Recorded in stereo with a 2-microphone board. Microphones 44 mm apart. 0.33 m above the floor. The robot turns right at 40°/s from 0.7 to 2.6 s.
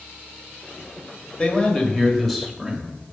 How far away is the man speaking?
About 1.3 m.